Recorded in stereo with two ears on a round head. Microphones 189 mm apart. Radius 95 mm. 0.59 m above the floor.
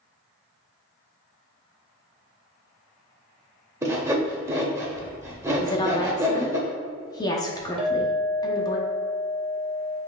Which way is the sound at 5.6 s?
20° left (ahead or behind).